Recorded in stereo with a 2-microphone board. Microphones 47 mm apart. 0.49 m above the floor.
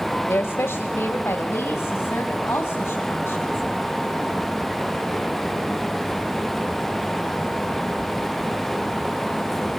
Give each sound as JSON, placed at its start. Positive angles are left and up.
{"t": 0.3, "sound": "a woman speaking", "side_deg": 65, "distance_m": 1.7}